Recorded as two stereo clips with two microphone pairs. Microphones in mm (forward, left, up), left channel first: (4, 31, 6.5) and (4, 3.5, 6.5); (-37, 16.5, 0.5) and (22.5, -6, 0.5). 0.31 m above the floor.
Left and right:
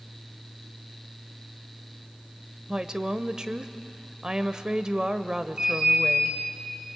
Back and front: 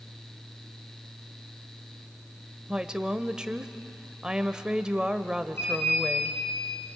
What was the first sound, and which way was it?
A woman speaking, 85° right.